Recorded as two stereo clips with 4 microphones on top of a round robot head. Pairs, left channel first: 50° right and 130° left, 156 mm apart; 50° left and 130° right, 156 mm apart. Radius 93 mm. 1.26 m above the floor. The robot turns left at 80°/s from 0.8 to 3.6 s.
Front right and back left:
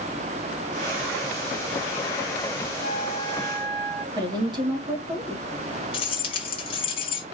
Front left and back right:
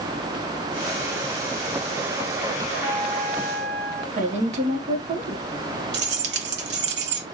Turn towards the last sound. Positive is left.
turn(degrees=-110)